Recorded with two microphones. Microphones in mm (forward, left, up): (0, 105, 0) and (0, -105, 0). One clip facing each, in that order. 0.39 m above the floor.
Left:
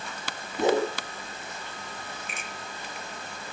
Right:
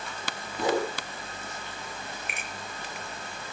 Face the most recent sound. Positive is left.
turn(degrees=-65)  # may be behind; listen again after turning